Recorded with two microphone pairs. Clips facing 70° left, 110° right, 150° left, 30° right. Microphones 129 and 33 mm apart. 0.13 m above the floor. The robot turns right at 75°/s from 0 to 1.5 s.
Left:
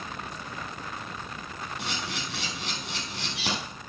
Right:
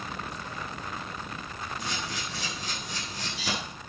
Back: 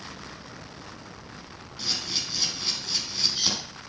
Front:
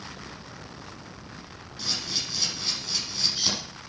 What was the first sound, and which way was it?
A camera shutter, 65° left.